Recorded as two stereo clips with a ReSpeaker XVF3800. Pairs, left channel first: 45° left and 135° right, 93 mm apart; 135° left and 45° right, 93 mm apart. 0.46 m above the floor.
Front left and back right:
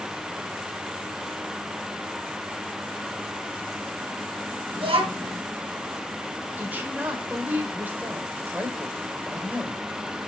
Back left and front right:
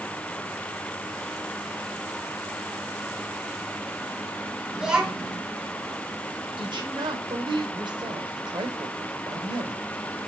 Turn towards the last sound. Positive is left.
turn(degrees=-65)